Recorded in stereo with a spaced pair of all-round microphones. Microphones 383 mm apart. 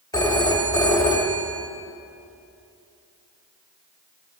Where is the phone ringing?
10° left (ahead or behind), 1.3 m.